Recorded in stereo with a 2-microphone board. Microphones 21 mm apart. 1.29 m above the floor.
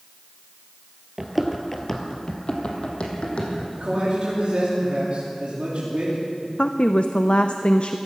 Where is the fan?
No fan in this recording.